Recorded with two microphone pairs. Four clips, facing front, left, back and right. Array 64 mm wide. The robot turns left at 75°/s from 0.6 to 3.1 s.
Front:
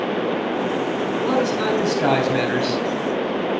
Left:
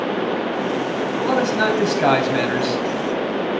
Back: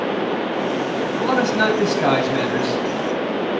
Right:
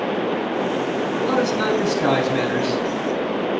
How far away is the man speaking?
About 3 m.